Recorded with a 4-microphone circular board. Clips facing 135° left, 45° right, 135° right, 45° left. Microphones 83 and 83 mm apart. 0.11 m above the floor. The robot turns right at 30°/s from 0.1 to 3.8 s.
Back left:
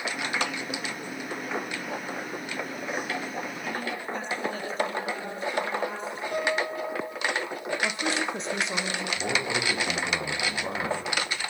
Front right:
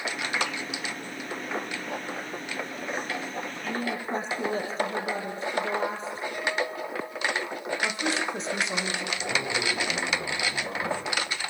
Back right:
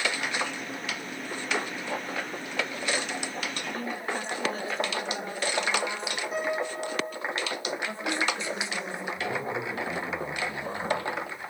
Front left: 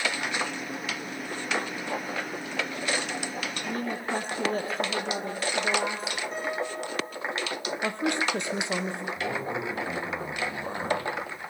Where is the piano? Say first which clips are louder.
Back left 3 dB, back right 4 dB; 140° left, 5 m.